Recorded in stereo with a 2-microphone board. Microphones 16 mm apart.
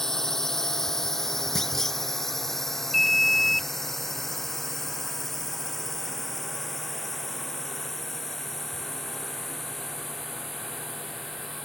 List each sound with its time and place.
0.0 s a drone: 20° left (ahead or behind); by 11.7 s centre (ahead or behind)
1.6 s a clunk: 30° left (ahead or behind)
2.9 s an alarm: 10° left (ahead or behind)